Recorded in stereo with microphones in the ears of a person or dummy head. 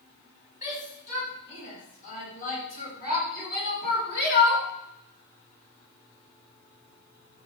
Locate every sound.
0.6 s a shout: 40° left (ahead or behind), 7 m; by 4.7 s 60° left (ahead or behind), 3.5 m